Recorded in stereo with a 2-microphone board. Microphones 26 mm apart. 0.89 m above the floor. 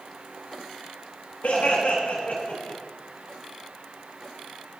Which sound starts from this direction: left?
Laughter, at 1.4 s.